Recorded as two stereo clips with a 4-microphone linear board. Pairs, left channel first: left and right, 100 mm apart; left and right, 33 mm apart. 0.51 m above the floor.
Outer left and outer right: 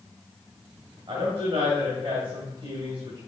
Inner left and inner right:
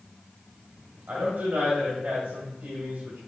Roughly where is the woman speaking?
Right.